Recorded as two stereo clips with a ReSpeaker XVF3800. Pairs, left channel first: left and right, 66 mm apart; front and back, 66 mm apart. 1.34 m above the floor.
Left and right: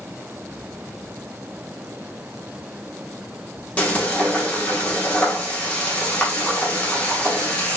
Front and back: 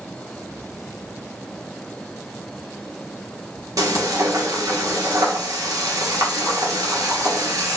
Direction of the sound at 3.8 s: 160° left.